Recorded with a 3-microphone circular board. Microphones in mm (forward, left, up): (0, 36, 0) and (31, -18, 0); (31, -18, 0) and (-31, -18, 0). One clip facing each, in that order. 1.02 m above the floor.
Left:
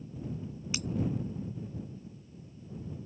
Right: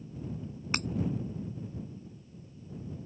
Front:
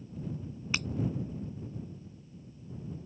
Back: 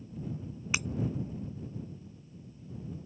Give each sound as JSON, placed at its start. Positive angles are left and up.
{"t": 0.7, "sound": "breaking glass", "azimuth_deg": -105}